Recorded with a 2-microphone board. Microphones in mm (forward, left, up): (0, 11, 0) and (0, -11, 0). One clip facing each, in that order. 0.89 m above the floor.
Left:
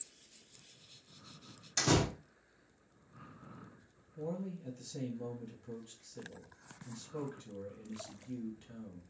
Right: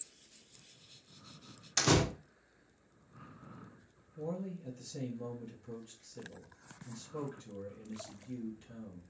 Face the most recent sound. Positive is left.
turn(degrees=10)  # may be behind; listen again after turning